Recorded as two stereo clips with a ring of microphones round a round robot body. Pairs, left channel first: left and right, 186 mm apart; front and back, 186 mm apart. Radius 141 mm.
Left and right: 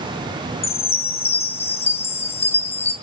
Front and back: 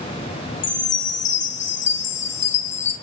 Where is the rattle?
No rattle in this recording.